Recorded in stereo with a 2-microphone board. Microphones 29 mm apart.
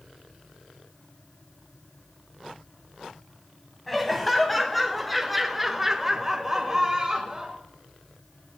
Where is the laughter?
5° left (ahead or behind), 1.8 m; by 7.6 s 20° right (ahead or behind), 1.3 m.